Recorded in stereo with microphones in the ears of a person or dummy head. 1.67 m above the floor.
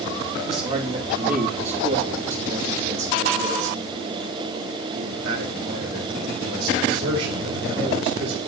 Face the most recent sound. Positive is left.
turn(degrees=-75)  # may be behind; listen again after turning